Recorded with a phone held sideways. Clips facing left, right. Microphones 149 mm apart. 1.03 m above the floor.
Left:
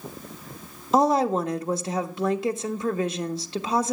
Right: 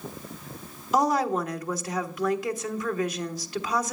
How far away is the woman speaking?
About 1.4 m.